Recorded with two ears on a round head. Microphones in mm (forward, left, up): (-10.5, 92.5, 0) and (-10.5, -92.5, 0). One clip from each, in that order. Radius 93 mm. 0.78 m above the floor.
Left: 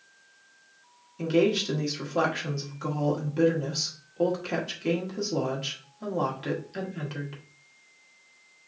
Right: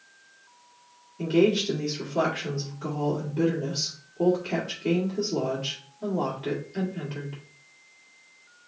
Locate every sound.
1.2 s a woman speaking: 55° left (ahead or behind), 1.7 m